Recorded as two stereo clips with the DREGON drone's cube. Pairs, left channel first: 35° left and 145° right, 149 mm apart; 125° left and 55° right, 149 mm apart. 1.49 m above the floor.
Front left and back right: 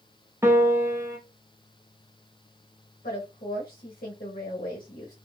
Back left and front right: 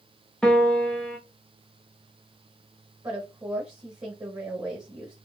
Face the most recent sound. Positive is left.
turn(degrees=5)